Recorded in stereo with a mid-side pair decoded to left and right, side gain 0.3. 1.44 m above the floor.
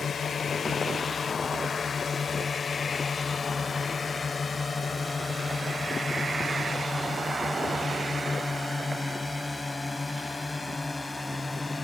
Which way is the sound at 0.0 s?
70° left.